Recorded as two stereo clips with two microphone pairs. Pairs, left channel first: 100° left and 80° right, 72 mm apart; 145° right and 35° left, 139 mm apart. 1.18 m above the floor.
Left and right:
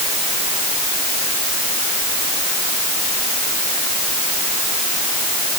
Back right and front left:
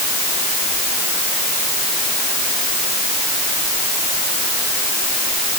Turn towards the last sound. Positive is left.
No sound to turn to.